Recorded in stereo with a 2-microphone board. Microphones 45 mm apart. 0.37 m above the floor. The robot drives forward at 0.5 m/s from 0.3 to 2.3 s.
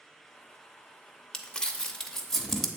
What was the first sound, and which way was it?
Crumpling, 15° left (ahead or behind).